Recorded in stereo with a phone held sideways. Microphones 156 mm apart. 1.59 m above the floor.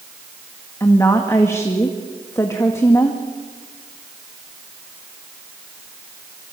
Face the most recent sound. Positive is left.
turn(degrees=20)  # may be behind; listen again after turning